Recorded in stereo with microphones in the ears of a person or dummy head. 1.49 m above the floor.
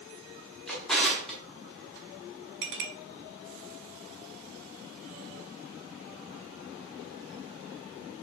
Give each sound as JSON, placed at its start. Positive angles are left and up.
{"t": 0.7, "sound": "a drawer", "side_deg": 0, "distance_m": 0.8}
{"t": 2.6, "sound": "a clink", "side_deg": -55, "distance_m": 0.9}